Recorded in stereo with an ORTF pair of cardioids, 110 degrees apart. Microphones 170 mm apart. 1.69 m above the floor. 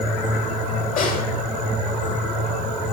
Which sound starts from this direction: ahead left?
A snare drum, at 1.0 s.